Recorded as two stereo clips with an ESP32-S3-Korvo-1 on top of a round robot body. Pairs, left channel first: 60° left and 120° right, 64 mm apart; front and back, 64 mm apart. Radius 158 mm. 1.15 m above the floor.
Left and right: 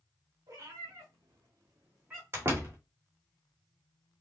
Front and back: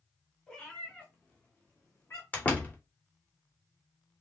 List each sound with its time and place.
0.5 s a cat meowing: 75° right, 1.7 m; by 2.2 s 35° right, 0.7 m
2.3 s a door slam: 65° right, 1.5 m